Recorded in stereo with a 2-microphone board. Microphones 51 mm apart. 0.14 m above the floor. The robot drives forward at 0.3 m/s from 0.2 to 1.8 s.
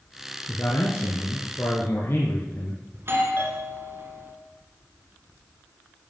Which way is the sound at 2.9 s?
45° right (ahead or behind).